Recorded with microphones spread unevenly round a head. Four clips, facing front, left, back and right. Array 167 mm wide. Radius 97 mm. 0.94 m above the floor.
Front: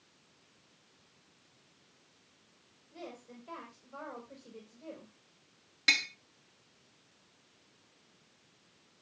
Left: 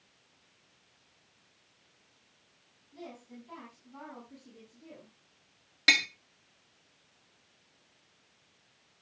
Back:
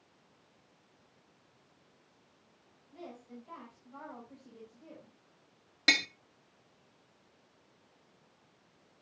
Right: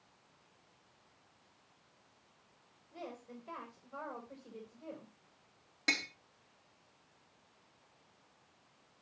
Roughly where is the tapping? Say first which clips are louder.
Left 7 dB, back 3 dB; behind.